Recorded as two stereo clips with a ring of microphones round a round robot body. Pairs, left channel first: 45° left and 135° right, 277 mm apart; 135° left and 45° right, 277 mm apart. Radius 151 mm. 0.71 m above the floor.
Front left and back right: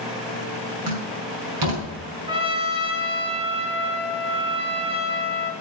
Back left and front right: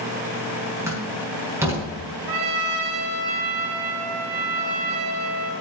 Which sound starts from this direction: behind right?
A door slam, at 0.9 s.